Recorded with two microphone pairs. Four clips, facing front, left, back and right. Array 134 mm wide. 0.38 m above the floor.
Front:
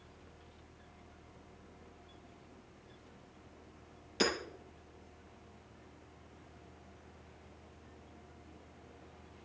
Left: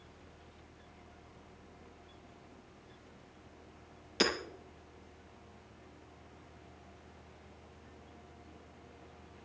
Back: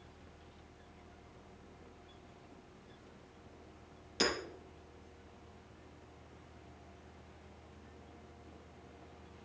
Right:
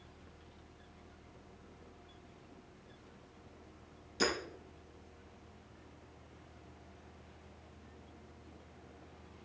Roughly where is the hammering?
Left.